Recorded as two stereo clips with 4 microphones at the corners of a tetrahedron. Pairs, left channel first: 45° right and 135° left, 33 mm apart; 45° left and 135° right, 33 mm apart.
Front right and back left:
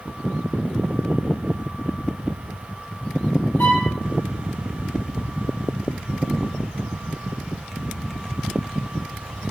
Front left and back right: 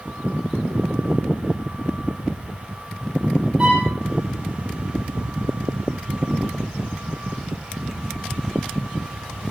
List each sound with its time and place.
3.6 s a violin: 65° right, 8 m